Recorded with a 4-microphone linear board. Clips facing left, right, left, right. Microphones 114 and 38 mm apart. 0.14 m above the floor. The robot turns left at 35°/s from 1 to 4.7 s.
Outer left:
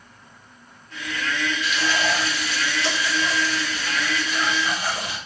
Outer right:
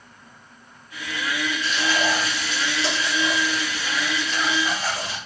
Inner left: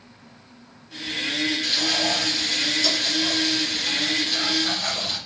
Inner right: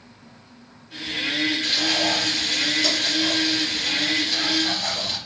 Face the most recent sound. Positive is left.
turn(degrees=160)